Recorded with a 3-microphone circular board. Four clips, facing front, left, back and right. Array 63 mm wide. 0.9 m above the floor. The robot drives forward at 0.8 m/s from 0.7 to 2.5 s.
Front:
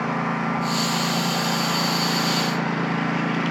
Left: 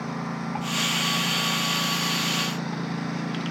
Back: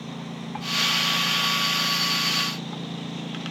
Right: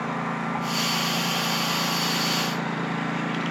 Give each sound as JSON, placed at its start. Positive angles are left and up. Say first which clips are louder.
{"t": 0.0, "sound": "a lawn mower", "louder": "right 3 dB, front 12 dB", "azimuth_deg": -20}